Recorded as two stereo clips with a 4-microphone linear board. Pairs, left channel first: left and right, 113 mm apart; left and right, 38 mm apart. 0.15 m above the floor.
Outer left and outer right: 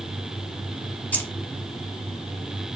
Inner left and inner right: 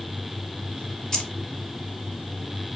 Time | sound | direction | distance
1.1 | keys jangling | 15° left (ahead or behind) | 0.7 m